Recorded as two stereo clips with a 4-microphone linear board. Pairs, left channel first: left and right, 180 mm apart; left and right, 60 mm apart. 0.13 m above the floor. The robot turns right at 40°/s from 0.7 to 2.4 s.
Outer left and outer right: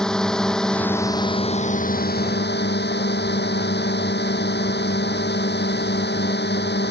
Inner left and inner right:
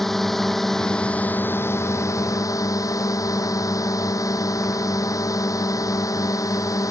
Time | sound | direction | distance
0.0 | a drone | 5° left | ?